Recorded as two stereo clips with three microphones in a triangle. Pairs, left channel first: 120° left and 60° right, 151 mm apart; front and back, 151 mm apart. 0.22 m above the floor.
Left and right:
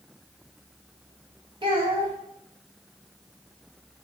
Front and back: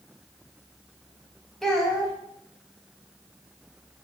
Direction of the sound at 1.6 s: 85° right.